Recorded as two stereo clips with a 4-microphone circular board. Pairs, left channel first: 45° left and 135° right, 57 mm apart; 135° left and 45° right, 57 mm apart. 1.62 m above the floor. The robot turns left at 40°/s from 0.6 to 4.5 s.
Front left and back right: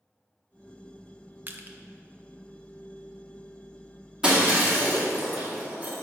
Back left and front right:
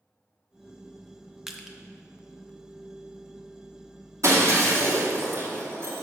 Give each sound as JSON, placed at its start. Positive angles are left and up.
{"t": 1.5, "sound": "crushing", "azimuth_deg": -120, "distance_m": 0.6}
{"t": 4.2, "sound": "breaking glass", "azimuth_deg": -65, "distance_m": 2.0}